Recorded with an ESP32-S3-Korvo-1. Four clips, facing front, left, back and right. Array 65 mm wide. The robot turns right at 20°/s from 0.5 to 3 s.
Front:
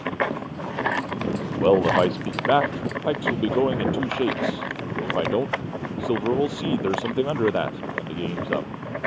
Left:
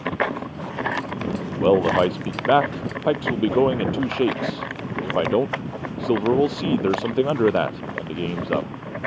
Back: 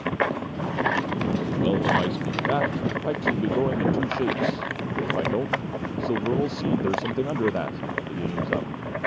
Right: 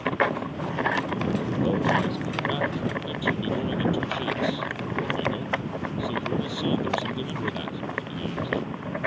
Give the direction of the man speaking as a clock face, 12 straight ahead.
10 o'clock.